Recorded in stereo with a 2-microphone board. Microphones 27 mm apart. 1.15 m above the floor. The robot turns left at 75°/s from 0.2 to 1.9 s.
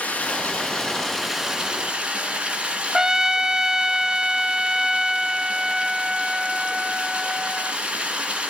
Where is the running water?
85° left, 8.5 m; by 8.5 s 40° right, 8.5 m.